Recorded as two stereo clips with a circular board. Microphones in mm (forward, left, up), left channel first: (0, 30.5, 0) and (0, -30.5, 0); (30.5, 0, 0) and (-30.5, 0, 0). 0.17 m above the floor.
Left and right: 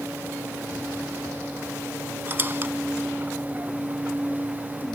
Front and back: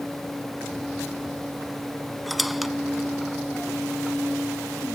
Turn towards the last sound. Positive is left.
turn(degrees=-90)